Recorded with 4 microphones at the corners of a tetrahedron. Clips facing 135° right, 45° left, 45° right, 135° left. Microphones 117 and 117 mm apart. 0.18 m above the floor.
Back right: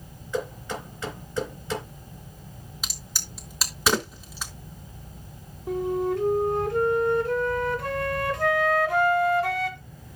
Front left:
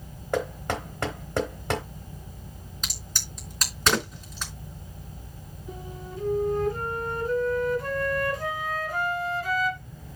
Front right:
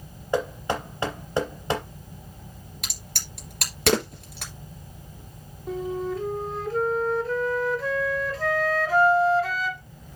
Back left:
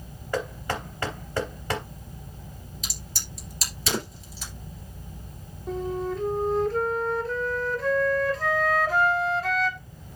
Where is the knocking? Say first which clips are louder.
Front left 2 dB, front right 4 dB; 20° left, 3.5 m.